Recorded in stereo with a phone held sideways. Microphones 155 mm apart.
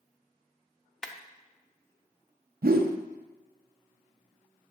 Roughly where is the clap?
Centre.